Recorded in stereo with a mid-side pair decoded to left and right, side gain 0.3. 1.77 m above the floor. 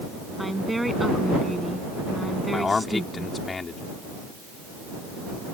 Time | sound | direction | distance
0.4 | a woman speaking | 10° right | ?
2.5 | a man speaking | 50° left | ?